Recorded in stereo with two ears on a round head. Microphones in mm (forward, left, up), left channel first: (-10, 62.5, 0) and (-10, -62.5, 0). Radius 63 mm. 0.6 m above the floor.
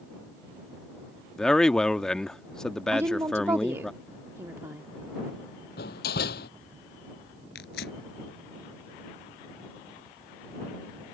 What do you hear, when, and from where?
1.4 s a man speaking: 5° left (ahead or behind)
2.9 s a woman speaking: 20° right (ahead or behind)
5.8 s a door slam: 75° left (ahead or behind)
7.5 s tearing paper: 85° left